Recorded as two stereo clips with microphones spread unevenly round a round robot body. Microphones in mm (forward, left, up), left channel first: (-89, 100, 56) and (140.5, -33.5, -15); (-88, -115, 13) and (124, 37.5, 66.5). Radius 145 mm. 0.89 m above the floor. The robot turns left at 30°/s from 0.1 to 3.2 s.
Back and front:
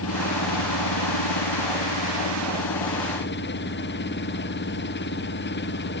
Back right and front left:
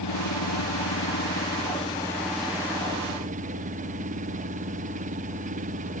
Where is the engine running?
165° right; by 6.0 s 100° left.